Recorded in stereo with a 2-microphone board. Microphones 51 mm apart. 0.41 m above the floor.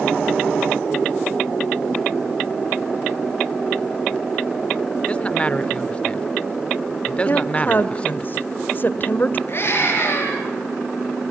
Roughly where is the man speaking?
Left.